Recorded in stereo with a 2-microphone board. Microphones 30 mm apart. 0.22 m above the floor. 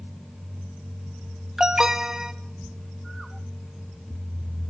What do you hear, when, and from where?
1.6 s an alarm: 25° right (ahead or behind), 1.4 m